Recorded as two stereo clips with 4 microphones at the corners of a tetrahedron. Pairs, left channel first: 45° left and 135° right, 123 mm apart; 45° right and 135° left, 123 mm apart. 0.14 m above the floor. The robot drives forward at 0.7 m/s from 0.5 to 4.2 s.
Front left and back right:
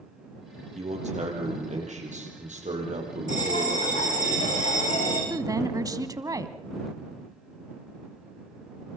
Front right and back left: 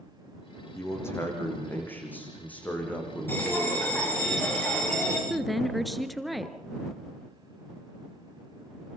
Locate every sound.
0.8 s a man speaking: 110° right, 7 m; by 4.2 s 130° right, 8 m
3.3 s a bell: 30° left, 8 m
5.3 s a woman speaking: 135° right, 1.1 m